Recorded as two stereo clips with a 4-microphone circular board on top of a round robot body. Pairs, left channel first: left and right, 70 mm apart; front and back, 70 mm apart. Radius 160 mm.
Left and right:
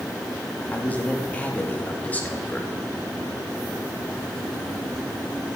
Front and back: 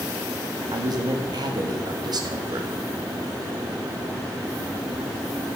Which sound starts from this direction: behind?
A man speaking, at 0.7 s.